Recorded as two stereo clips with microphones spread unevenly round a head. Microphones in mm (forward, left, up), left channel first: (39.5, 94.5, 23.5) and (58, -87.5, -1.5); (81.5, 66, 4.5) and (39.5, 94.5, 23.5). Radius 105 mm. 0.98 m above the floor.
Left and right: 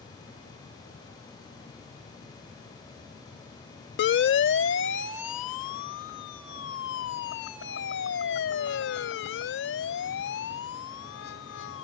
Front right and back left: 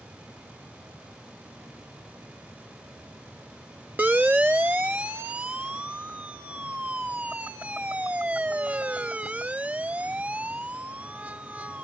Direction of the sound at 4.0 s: 80° left.